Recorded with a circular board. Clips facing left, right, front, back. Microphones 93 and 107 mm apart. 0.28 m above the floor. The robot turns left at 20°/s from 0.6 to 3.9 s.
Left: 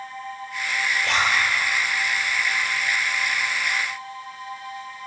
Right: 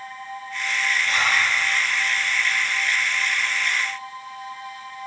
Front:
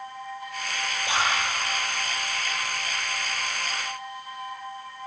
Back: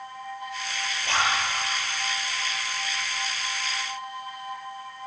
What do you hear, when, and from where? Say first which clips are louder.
1.0 s a zipper: left 2 dB, back 1 dB; 80° left, 8.5 m; by 1.4 s 75° left, 8.5 m